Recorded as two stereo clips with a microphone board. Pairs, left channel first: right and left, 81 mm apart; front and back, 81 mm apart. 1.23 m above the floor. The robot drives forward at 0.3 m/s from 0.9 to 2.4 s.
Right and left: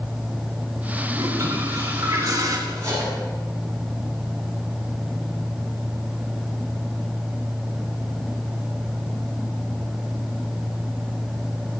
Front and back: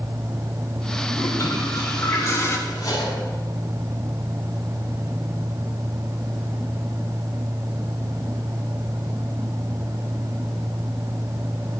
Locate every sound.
1.1 s a toilet flushing: 45° left, 3 m; by 2.6 s 50° left, 3 m
2.7 s cutlery clinking: 40° left, 8 m